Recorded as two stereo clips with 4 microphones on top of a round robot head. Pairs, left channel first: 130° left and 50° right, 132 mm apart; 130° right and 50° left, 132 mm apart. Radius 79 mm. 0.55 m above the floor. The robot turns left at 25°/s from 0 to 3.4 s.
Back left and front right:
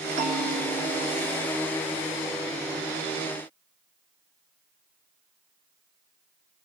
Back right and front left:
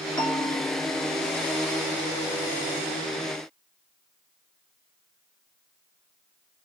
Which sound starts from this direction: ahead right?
A bell, at 0.2 s.